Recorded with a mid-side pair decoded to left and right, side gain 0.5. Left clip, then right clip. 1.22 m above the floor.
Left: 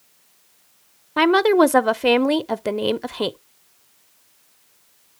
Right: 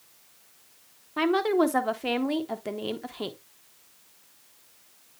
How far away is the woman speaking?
About 0.7 m.